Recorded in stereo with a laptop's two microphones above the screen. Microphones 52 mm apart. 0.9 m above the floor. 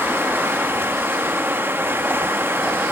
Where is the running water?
45° right (ahead or behind), 0.9 m.